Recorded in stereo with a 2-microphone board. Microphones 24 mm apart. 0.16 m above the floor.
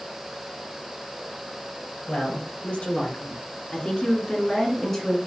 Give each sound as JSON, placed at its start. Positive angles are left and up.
{"t": 2.1, "sound": "a woman speaking", "side_deg": 65, "distance_m": 3.5}